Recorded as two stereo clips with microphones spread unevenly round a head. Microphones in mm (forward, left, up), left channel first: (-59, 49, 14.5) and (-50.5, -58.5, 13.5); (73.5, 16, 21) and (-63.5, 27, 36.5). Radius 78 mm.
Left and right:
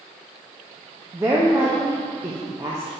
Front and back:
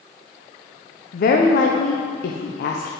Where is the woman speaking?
15° right, 0.6 m.